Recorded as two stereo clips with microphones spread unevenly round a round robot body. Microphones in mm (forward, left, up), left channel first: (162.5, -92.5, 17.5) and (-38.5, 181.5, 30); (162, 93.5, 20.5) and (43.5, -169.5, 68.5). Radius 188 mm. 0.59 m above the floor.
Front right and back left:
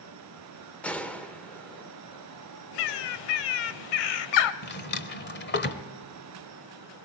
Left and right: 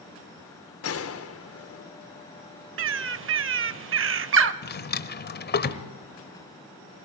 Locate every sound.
0.8 s a gunshot: 30° left, 1.3 m
2.8 s a bird: 75° right, 0.6 m
4.6 s a drawer: 10° left, 1.2 m